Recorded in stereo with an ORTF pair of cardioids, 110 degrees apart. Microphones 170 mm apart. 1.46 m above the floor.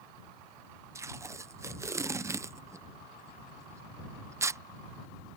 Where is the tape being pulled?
15° right.